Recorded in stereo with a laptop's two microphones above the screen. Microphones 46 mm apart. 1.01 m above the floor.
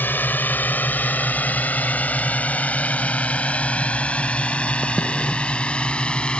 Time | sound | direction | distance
0.0 | a drone | 45° left (ahead or behind) | ?